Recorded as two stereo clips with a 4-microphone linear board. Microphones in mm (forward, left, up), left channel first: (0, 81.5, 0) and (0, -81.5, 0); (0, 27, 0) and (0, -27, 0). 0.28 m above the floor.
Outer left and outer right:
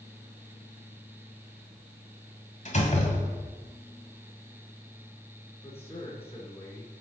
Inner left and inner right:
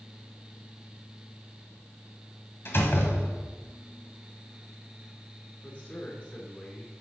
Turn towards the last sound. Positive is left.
turn(degrees=40)  # may be behind; listen again after turning